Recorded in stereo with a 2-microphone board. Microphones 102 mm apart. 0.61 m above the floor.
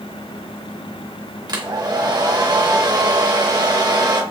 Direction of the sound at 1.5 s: 40° right (ahead or behind).